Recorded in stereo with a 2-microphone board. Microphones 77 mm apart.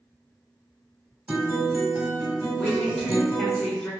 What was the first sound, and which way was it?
A guitar, 15° right (ahead or behind).